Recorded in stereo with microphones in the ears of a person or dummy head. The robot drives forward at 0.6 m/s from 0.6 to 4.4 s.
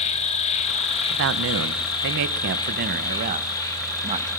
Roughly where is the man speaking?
Right.